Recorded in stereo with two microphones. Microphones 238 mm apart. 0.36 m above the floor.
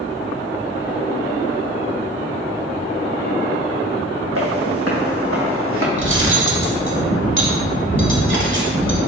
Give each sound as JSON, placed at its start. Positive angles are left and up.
{"t": 4.3, "sound": "footsteps", "side_deg": -70, "distance_m": 1.3}
{"t": 6.0, "sound": "cutlery clinking", "side_deg": -55, "distance_m": 0.9}